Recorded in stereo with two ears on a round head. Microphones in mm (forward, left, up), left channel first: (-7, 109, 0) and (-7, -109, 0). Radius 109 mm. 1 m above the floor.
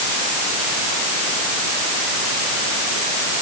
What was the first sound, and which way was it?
Only background noise.